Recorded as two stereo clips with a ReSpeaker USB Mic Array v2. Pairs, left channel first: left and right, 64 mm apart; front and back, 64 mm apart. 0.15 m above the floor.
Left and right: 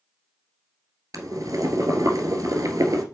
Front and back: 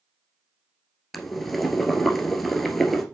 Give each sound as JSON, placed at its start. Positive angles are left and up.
{"t": 1.1, "sound": "boiling", "azimuth_deg": -90, "distance_m": 1.4}